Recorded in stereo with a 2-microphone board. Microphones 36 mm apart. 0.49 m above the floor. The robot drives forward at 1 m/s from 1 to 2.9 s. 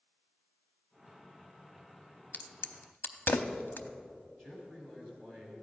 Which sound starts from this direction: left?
A crack, at 2.3 s.